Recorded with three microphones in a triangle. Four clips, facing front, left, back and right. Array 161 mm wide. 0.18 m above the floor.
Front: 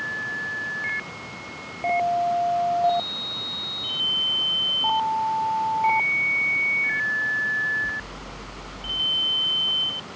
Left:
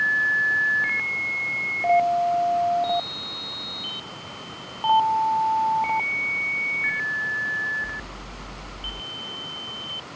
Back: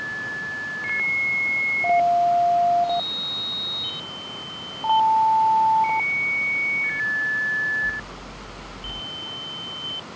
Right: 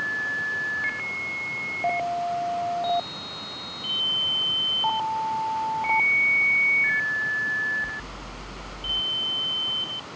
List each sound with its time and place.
Only background noise.